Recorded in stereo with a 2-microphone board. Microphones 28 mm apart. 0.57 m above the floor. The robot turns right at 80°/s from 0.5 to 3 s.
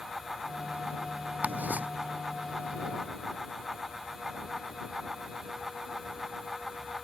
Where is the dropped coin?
No dropped coin in this recording.